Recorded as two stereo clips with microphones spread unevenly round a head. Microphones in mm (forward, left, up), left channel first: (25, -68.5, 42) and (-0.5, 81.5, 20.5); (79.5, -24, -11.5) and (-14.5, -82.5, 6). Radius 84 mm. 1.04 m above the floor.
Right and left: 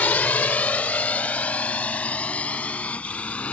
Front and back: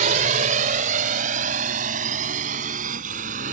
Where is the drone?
160° right; by 3.5 s 165° right.